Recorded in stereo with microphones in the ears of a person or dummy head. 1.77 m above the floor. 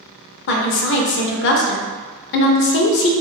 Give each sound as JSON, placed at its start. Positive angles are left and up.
{"t": 0.5, "sound": "a woman speaking", "side_deg": 60, "distance_m": 0.5}